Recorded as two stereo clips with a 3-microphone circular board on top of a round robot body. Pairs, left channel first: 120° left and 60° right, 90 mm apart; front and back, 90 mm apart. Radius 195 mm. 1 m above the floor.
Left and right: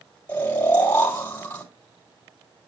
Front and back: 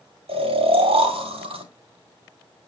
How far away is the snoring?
About 3.5 m.